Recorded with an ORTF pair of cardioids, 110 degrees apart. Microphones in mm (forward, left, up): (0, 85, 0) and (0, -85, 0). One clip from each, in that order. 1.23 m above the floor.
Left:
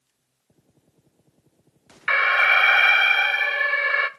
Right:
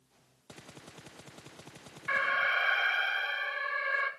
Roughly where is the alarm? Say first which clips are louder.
Left 11 dB; ahead left.